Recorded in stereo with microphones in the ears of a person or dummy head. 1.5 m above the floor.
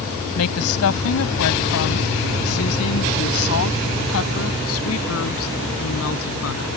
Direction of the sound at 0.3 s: 90° left.